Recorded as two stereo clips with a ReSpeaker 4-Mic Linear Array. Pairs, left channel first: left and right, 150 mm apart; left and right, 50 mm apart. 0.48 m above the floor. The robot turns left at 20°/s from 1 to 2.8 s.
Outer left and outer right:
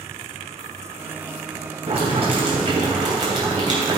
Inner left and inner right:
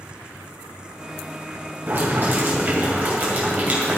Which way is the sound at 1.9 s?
45° right (ahead or behind).